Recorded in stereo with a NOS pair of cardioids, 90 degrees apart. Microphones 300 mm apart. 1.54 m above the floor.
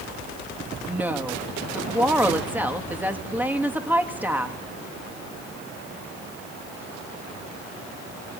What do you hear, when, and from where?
0.9 s a woman speaking: 5° right, 2.5 m